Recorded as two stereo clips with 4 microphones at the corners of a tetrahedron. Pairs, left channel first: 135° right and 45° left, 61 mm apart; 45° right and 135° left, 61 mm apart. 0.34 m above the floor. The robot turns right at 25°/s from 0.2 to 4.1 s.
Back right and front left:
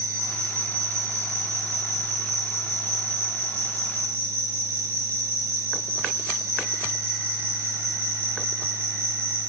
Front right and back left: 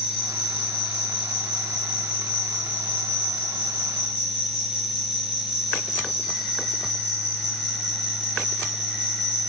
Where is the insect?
80° right, 1.3 m; by 9.5 s 20° left, 1.3 m.